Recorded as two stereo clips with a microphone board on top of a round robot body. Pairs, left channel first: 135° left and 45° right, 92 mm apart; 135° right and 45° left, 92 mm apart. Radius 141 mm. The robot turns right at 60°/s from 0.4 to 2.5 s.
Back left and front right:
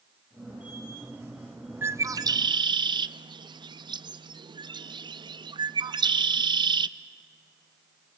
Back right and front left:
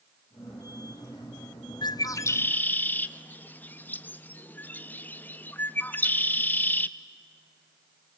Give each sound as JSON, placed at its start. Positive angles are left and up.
{"t": 1.8, "sound": "a bird", "azimuth_deg": -110, "distance_m": 0.6}